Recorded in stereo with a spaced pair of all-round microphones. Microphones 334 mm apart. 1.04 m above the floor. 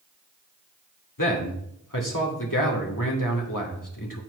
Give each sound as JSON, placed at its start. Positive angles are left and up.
{"t": 1.2, "sound": "a man speaking", "side_deg": 70, "distance_m": 2.0}